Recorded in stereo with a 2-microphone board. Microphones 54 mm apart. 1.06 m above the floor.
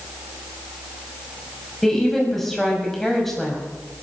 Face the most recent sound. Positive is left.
turn(degrees=5)  # may be behind; listen again after turning